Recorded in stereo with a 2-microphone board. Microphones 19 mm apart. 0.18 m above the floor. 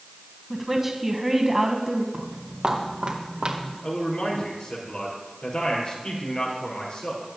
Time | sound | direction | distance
0.5 | a woman speaking | 15° right (ahead or behind) | 1.0 m
2.1 | footsteps | 30° right (ahead or behind) | 3.5 m
3.8 | a man speaking | 60° left (ahead or behind) | 4.5 m